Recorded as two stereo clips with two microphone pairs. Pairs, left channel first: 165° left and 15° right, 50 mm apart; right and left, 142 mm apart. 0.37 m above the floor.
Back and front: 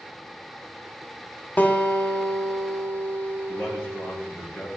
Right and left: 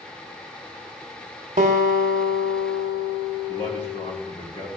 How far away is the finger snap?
I don't hear a finger snap.